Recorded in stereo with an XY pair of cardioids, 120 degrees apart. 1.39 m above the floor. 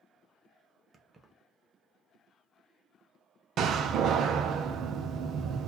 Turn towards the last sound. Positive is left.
turn(degrees=-60)